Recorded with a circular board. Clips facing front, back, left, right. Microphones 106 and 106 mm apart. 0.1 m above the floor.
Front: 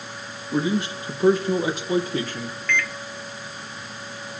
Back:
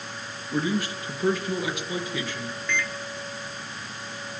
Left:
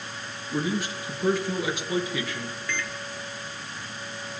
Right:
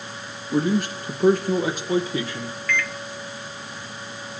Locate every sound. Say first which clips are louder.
0.5 s a man speaking: front 3 dB, right 6 dB; 70° right, 3 m; by 2.6 s 30° right, 2.5 m
2.7 s a microwave: front 4 dB, right 8 dB; 130° left, 1.0 m